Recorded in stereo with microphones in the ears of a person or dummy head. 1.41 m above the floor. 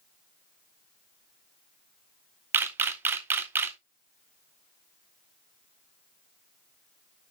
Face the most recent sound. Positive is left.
turn(degrees=-15)  # may be behind; listen again after turning